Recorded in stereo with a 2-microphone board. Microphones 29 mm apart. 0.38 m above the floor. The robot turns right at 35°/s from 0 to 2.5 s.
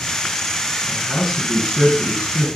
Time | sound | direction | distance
0.9 | a man speaking | 155° left | 4 m